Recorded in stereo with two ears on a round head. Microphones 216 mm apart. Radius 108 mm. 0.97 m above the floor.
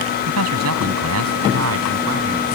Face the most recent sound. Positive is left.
turn(degrees=-55)  # may be behind; listen again after turning